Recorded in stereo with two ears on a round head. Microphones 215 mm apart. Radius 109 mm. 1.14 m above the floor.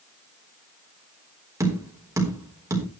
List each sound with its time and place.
1.6 s tapping: 10° right (ahead or behind), 4 m